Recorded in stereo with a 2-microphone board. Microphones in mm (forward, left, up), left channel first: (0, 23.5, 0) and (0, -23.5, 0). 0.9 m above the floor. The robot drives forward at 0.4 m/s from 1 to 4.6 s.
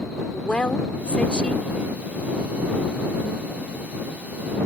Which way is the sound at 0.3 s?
20° left (ahead or behind).